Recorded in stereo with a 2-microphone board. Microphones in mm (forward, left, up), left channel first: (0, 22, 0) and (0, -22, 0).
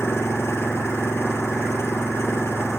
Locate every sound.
0.0 s an engine running: 80° left